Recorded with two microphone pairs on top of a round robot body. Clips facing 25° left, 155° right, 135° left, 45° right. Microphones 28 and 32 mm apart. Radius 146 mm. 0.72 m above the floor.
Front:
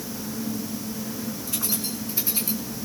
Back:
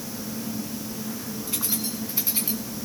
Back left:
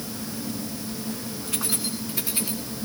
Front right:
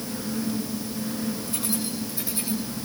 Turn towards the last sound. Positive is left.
turn(degrees=140)